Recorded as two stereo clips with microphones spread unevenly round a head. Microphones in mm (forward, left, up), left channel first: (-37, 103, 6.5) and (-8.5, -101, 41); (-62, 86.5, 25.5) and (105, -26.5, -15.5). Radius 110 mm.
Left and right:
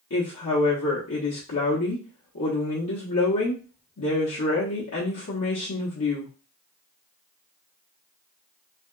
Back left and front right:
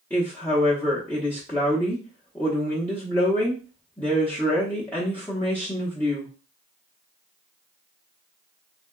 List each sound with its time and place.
0.1 s a woman speaking: 70° left, 0.8 m